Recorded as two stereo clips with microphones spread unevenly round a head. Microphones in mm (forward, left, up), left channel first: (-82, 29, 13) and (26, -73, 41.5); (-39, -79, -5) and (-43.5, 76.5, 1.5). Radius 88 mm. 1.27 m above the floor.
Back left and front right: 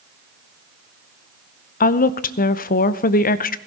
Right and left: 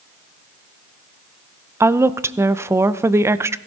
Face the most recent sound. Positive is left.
turn(degrees=165)